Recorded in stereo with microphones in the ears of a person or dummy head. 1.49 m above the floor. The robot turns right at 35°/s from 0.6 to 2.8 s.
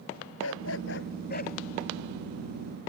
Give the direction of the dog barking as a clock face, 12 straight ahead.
9 o'clock.